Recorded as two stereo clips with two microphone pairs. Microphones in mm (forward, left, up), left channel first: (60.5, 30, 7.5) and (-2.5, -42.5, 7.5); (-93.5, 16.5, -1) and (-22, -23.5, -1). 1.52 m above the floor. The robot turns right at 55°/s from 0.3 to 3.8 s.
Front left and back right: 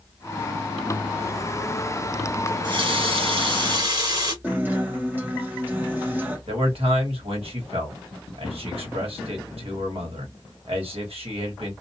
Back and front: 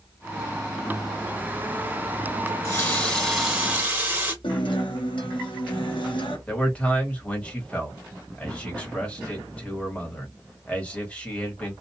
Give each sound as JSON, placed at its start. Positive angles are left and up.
{"t": 2.5, "sound": "a running tap", "azimuth_deg": -170, "distance_m": 1.5}
{"t": 4.4, "sound": "a guitar", "azimuth_deg": 155, "distance_m": 0.8}
{"t": 6.5, "sound": "a man speaking", "azimuth_deg": -135, "distance_m": 1.3}